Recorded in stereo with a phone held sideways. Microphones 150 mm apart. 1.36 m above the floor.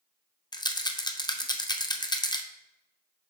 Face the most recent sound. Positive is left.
turn(degrees=30)  # may be behind; listen again after turning